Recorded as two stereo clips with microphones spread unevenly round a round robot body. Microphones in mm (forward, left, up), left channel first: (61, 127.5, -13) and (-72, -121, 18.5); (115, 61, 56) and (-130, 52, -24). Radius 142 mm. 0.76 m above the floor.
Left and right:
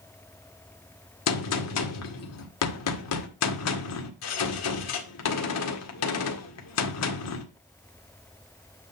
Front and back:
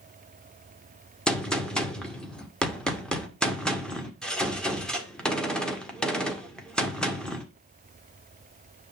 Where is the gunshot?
95° left, 1.8 m.